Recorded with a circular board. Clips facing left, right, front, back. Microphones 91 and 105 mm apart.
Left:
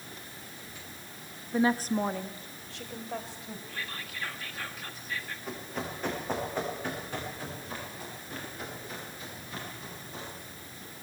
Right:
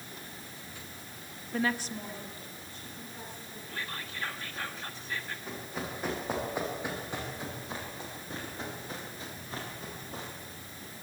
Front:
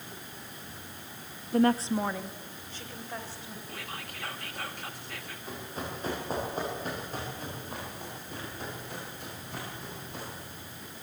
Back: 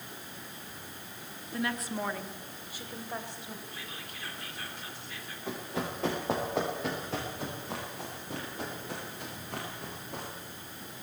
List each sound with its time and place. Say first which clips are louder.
1.5 s a woman speaking: left 6 dB, front 9 dB; 15° left, 0.8 m; by 3.6 s 105° left, 3 m
3.7 s whispering: right 3 dB, front 3 dB; 30° right, 1.5 m
5.5 s running footsteps: left 3 dB, back 4 dB; straight behind, 7.5 m; by 10.3 s 140° right, 9.5 m